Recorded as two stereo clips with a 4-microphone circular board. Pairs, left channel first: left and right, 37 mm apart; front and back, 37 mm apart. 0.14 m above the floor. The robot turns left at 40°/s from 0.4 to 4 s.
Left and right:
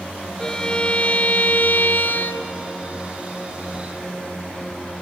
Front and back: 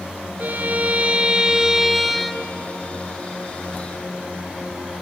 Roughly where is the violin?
Behind.